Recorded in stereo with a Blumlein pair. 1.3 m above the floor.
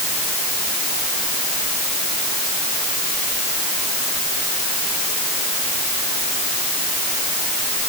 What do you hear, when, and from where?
Only background noise.